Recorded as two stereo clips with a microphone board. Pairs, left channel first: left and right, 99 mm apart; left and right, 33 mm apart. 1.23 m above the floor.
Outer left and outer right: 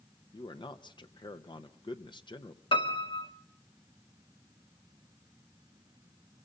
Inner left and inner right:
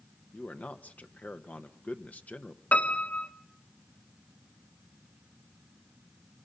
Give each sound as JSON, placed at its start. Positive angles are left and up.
{"t": 0.3, "sound": "a man speaking", "side_deg": 50, "distance_m": 1.1}
{"t": 2.7, "sound": "a piano", "side_deg": 60, "distance_m": 1.7}